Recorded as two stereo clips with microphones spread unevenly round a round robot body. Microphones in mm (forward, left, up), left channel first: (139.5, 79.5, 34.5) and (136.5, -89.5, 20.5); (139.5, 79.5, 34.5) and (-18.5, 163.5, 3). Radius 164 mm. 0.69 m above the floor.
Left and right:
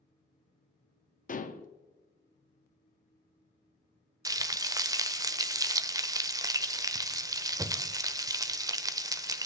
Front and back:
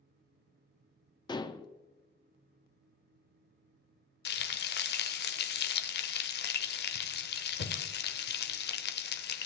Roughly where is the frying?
Ahead.